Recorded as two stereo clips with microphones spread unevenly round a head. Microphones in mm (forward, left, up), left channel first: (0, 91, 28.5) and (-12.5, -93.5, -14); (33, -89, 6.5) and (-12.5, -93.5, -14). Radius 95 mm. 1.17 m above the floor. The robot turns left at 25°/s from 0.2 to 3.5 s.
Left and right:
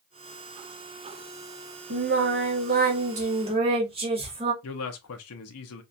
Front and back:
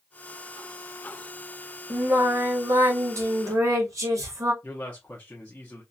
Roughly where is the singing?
Behind right.